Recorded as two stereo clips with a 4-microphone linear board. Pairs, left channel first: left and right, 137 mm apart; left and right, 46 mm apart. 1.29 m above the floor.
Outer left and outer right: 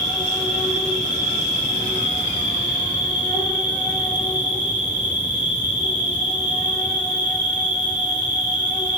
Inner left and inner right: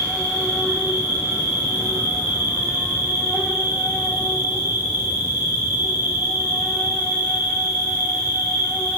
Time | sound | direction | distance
0.0 | an insect | 80° right | 1.8 m